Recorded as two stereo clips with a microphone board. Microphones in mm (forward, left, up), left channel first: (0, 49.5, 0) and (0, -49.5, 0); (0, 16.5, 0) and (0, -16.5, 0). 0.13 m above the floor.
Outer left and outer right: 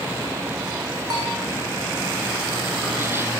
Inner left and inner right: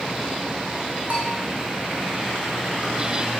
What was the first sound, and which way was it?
A bell, 45° right (ahead or behind).